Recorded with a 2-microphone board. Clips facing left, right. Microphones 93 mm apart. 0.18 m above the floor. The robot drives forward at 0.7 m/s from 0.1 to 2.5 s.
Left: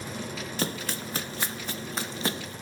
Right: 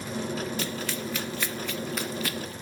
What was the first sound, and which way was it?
Running footsteps, 35° left (ahead or behind).